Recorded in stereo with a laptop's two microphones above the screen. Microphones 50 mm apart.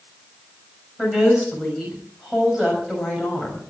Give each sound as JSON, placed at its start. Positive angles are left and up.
{"t": 1.0, "sound": "a woman speaking", "side_deg": -5, "distance_m": 5.5}